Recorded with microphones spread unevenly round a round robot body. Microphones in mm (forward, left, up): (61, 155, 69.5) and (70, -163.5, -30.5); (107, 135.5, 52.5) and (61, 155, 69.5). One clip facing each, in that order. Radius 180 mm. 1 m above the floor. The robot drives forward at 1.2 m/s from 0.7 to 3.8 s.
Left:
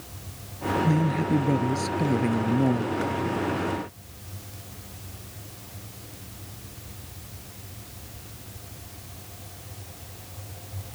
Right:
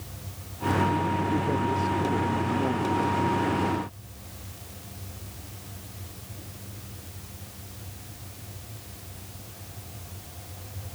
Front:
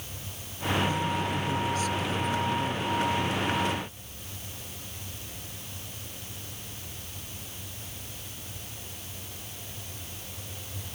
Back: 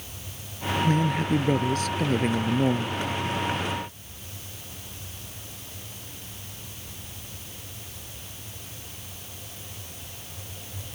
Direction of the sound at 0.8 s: 130° left.